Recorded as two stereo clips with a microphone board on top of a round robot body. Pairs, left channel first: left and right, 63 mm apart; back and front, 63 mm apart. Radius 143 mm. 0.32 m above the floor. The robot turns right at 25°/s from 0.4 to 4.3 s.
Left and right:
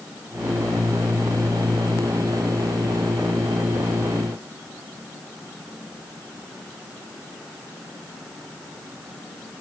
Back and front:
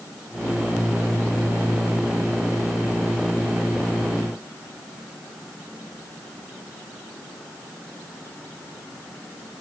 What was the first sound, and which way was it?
Only background noise.